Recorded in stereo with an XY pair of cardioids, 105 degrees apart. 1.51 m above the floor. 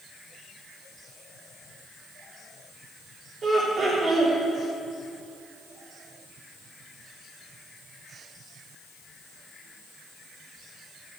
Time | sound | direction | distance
3.4 | laughter | 40° right | 4 m